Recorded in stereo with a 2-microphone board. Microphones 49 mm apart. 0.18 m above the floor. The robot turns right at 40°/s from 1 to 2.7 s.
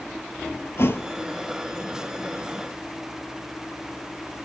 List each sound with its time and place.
0.8 s a thud: 65° left (ahead or behind), 0.7 m; by 1.1 s 70° left (ahead or behind), 0.7 m